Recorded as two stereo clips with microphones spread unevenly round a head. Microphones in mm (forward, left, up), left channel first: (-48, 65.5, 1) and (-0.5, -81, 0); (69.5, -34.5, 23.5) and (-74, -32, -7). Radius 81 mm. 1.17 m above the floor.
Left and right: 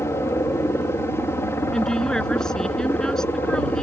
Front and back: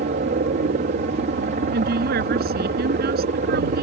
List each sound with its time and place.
0.0 s a helicopter: straight behind
1.7 s a woman speaking: 165° right